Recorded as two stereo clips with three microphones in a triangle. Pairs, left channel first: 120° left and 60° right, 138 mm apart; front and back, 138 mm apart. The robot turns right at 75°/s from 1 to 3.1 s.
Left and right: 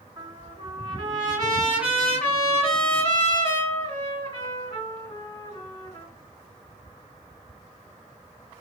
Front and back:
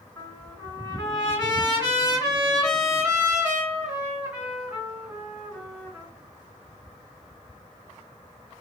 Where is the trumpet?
50° right, 2 m; by 6.1 s 105° left, 2 m.